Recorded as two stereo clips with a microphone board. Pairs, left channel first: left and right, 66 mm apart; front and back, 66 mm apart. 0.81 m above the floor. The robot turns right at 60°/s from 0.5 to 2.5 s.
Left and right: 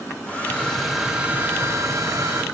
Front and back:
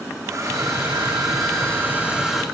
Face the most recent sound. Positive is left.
turn(degrees=-85)